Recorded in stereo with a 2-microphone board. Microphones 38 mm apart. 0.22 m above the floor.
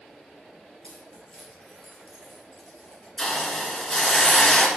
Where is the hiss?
20° left (ahead or behind), 1.7 m.